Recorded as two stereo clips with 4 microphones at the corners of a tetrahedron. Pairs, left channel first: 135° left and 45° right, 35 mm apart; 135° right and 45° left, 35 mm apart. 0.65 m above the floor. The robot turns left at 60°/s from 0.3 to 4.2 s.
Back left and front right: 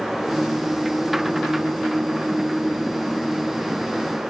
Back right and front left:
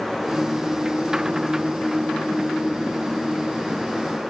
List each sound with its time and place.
Only background noise.